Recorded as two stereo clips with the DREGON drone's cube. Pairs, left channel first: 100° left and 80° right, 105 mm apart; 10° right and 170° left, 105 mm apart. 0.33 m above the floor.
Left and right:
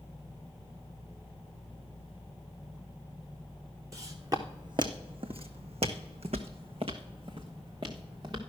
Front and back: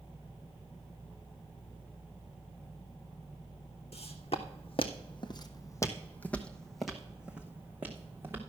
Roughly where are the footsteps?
Ahead.